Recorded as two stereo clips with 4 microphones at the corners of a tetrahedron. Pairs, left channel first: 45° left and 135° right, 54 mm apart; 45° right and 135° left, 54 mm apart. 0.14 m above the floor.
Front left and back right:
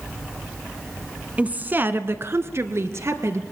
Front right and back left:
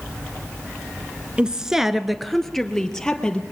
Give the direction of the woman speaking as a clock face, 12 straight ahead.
6 o'clock.